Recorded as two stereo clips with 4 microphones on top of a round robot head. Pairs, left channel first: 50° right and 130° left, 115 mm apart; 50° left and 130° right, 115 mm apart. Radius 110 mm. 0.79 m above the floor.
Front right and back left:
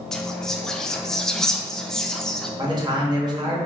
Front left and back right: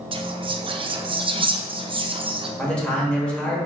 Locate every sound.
0.1 s whispering: 135° right, 0.5 m
2.6 s a man speaking: 125° left, 0.9 m